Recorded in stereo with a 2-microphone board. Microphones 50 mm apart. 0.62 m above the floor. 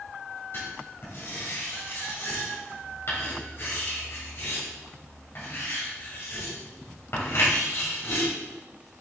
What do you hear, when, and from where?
0.5 s writing: 50° left (ahead or behind), 3.5 m